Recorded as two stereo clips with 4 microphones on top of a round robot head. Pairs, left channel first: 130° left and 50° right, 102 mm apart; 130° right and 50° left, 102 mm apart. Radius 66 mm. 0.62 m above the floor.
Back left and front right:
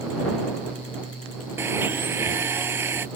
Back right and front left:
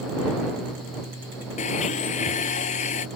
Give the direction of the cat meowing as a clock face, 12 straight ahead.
No cat meowing in this recording.